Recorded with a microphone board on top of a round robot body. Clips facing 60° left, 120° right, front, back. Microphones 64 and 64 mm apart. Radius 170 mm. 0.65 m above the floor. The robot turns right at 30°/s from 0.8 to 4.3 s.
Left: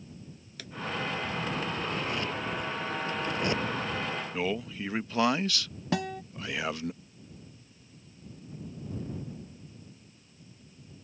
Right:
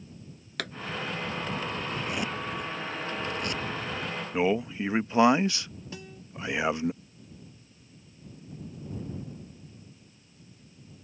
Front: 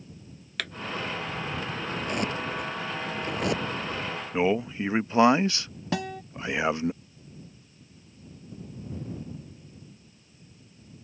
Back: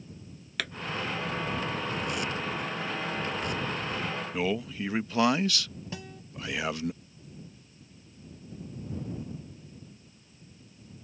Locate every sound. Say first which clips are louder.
0.6 s a pop: right 12 dB, even; 90° right
1.9 s a zipper: even, front 2 dB; 55° right; by 3.8 s straight ahead
4.3 s a man speaking: right 9 dB, front 7 dB; 60° right
5.9 s a guitar: left 16 dB, front 14 dB; 30° left